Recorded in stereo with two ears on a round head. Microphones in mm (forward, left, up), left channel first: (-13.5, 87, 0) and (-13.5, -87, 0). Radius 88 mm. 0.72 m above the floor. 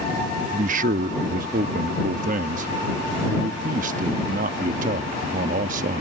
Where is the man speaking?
45° right (ahead or behind).